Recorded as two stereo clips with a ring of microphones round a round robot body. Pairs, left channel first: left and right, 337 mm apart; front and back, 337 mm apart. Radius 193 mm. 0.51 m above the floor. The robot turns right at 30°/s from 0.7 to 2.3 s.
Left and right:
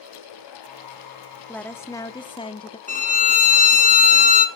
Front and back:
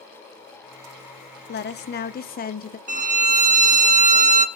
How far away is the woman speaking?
About 0.7 m.